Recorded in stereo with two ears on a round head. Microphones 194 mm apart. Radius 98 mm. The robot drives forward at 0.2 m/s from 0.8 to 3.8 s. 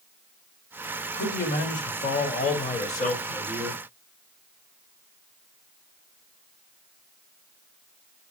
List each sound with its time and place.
1.1 s a man speaking: 40° left (ahead or behind), 1.2 m; by 3.8 s 30° left (ahead or behind), 1.7 m